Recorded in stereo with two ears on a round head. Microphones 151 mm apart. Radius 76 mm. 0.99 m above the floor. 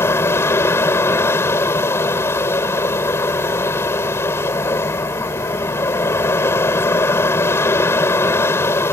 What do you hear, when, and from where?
0.0 s an aircraft: 15° left (ahead or behind)